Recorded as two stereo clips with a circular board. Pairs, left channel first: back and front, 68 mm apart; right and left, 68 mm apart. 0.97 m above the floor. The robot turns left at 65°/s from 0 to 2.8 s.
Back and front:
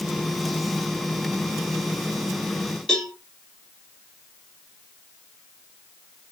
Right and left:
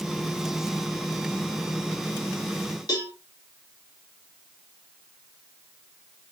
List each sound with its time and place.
2.9 s a cowbell: 95° right, 1.0 m